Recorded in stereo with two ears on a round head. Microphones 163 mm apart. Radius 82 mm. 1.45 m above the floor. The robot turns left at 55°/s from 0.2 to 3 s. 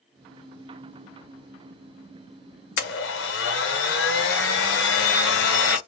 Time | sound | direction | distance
2.8 | a blender | 60° left (ahead or behind) | 0.8 m